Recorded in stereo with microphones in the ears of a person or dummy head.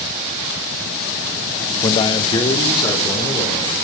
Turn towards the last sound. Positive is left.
turn(degrees=25)  # may be behind; listen again after turning